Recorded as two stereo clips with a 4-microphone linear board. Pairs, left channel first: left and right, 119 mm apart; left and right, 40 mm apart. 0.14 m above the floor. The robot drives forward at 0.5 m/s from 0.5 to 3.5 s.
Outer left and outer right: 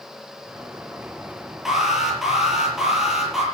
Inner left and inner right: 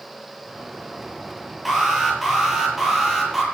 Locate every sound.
1.6 s an alarm: 5° right (ahead or behind), 5.5 m